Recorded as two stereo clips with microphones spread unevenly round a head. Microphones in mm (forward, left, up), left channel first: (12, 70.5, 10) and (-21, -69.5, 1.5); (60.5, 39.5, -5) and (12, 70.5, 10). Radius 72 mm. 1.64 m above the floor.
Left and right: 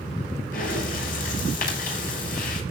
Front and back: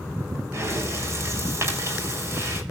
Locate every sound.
0.5 s breathing: 110° left, 7 m